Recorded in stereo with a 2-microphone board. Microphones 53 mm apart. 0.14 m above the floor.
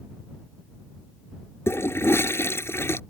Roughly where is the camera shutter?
I don't hear a camera shutter.